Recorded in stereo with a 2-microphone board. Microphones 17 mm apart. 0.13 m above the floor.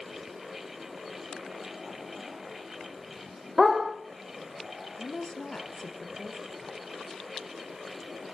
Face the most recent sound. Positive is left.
turn(degrees=55)  # may be behind; listen again after turning